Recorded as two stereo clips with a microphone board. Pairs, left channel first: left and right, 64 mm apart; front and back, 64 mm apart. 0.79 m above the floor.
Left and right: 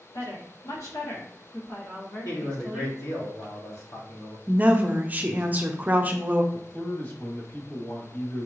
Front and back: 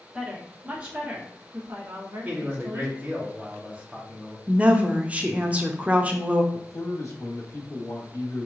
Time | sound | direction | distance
0.1 | a woman speaking | 105° left | 1.7 m
2.2 | a man speaking | 120° left | 1.8 m
4.5 | a woman speaking | 125° right | 0.7 m
6.5 | a man speaking | 35° left | 1.5 m